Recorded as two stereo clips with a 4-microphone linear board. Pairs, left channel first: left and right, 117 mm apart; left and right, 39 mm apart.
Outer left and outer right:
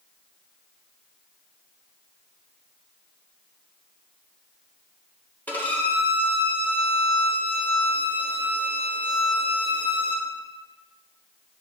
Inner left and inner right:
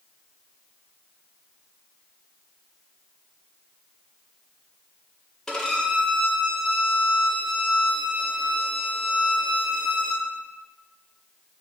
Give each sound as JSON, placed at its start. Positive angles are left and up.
{"t": 5.5, "sound": "a violin", "side_deg": 15, "distance_m": 0.7}